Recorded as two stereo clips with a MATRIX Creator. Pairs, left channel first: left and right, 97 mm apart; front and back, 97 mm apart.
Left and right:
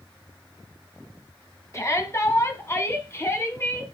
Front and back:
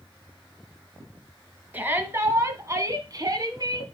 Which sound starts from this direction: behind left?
A shout, at 1.7 s.